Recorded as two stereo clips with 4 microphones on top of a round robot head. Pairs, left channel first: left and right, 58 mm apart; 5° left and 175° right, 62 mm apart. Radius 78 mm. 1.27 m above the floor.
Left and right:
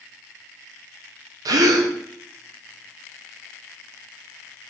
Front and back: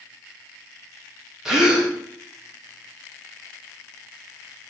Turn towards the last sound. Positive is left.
turn(degrees=-90)